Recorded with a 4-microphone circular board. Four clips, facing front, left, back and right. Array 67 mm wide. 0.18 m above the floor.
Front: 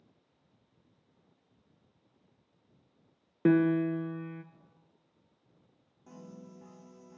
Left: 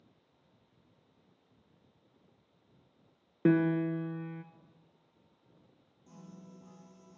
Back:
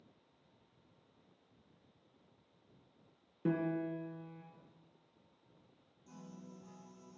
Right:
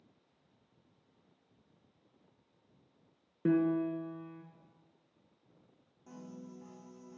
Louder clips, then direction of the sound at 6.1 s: Right 4 dB, front 4 dB; 35° right.